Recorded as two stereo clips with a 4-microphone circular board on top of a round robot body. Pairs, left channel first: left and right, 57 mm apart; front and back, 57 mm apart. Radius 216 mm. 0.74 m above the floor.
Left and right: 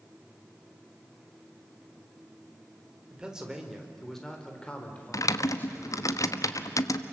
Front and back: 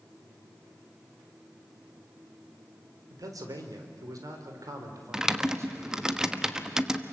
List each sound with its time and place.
3.1 s a man speaking: 165° right, 4 m; by 6.1 s 135° left, 5.5 m
5.1 s typing on a keyboard: 100° left, 1.2 m